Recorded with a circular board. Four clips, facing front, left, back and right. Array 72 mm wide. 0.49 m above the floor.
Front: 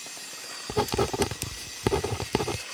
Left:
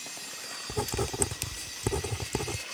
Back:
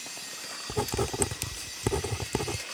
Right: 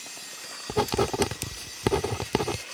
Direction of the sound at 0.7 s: 60° right.